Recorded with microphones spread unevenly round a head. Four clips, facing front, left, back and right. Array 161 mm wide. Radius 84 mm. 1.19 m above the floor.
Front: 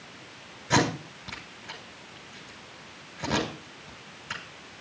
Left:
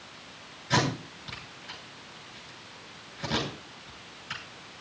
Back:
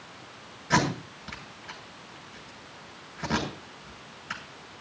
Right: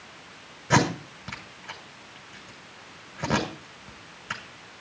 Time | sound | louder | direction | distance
0.7 | tape being pulled | right 5 dB, front 1 dB | 80° right | 8.5 m